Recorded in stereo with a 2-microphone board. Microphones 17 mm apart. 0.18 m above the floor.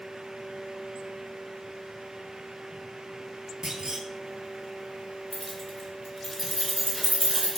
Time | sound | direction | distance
3.6 | a clunk | 40° right (ahead or behind) | 0.6 m
5.3 | keys jangling | 25° left (ahead or behind) | 1.4 m